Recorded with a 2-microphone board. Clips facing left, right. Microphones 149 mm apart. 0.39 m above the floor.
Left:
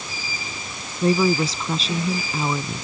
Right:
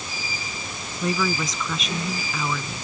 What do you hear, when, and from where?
1.0 s a woman speaking: 30° left (ahead or behind)